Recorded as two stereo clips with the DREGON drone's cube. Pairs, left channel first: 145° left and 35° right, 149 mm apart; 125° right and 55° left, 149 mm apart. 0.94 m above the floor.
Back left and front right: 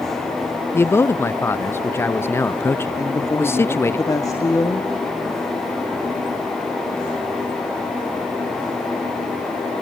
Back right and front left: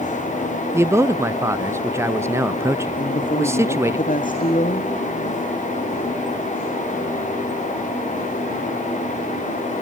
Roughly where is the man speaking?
Left.